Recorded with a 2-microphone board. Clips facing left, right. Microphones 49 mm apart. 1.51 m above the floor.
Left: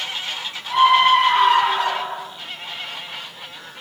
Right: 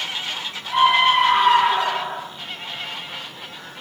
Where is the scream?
10° right (ahead or behind), 6.5 m; by 2.2 s 15° right (ahead or behind), 6 m.